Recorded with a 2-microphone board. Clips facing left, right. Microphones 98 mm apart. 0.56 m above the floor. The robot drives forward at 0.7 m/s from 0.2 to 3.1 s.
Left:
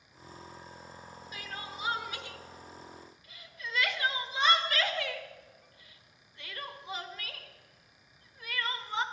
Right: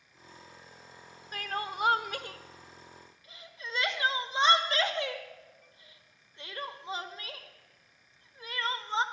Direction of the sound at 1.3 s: 50° right (ahead or behind).